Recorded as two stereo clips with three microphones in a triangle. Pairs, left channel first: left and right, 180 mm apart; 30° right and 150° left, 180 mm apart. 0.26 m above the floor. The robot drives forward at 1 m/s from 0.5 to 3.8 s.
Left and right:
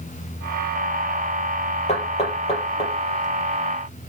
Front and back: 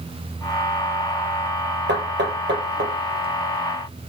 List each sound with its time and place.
1.9 s knocking: 140° left, 4.5 m; by 2.9 s 150° left, 5.5 m